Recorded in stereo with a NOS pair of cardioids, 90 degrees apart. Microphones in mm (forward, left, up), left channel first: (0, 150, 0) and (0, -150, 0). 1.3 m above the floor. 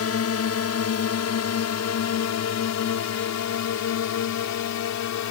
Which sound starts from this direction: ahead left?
A drone, at 0.0 s.